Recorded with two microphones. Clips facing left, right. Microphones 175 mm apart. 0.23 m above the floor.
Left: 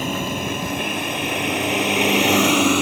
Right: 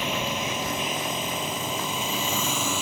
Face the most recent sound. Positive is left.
turn(degrees=70)  # may be behind; listen again after turning